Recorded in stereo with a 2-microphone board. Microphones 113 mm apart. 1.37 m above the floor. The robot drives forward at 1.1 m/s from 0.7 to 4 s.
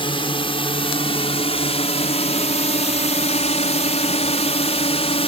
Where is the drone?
50° left (ahead or behind); by 5.3 s 60° left (ahead or behind).